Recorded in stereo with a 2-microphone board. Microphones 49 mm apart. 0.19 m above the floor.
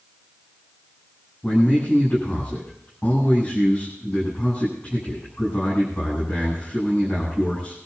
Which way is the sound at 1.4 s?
35° left (ahead or behind).